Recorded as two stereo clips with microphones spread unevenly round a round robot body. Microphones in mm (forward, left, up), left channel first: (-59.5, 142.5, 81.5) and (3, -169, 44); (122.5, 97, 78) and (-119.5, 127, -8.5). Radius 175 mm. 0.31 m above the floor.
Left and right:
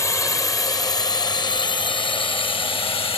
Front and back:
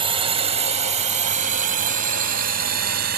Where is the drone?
175° right; by 3.2 s 175° left.